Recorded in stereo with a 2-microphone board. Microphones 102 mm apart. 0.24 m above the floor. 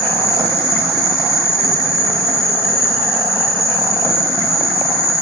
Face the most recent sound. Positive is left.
turn(degrees=-5)  # may be behind; listen again after turning